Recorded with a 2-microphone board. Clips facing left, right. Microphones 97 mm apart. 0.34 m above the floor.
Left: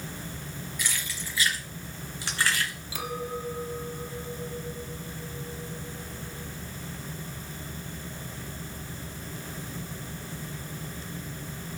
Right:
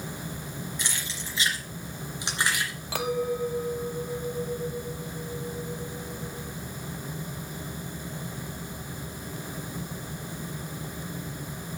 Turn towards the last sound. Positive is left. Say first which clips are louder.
# right 7 dB
turn(degrees=-65)  # may be behind; listen again after turning